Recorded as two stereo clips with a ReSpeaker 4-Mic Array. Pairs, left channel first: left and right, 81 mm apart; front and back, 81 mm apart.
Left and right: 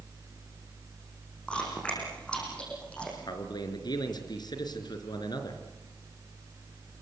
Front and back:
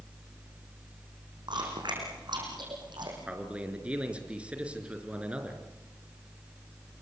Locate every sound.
1.5 s chewing: 165° left, 7 m
3.3 s a man speaking: 105° left, 3.5 m